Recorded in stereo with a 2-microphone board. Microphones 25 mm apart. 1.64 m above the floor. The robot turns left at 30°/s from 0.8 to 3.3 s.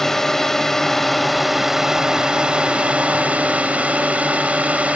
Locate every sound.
0.0 s a drone: 15° left; by 5.0 s 60° right